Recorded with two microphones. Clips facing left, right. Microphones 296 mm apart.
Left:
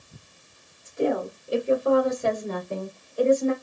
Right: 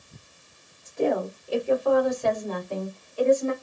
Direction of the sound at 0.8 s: 15° left (ahead or behind).